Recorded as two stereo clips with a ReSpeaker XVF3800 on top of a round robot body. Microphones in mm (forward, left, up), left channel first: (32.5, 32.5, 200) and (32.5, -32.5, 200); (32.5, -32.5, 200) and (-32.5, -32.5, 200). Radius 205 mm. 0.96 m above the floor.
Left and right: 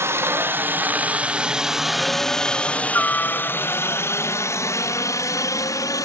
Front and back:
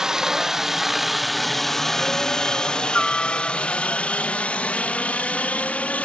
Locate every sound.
0.0 s a helicopter: 100° right; by 6.0 s 70° left